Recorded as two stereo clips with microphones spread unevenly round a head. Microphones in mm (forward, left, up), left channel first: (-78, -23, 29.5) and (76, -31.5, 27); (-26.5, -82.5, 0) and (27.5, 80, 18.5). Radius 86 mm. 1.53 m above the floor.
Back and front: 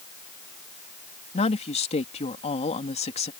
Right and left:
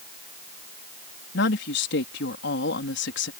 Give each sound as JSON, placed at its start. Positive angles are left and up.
{"t": 1.3, "sound": "a woman speaking", "azimuth_deg": -135}